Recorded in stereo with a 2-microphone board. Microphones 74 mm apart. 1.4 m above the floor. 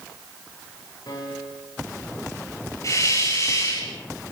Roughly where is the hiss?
Left.